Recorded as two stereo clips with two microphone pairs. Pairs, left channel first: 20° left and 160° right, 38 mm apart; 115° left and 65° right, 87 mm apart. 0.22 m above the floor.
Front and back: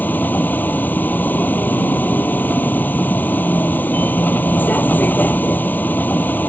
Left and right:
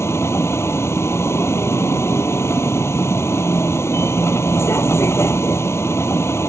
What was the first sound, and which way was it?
A vehicle, 50° left.